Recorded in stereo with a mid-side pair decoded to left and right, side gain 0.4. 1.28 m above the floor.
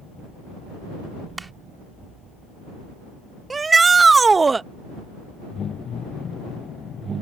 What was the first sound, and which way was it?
A clap, 25° right.